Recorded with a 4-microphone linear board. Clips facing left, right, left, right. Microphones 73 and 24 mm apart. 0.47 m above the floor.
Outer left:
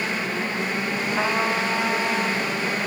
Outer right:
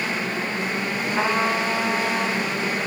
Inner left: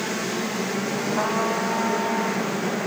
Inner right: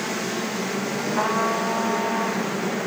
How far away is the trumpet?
About 1.5 m.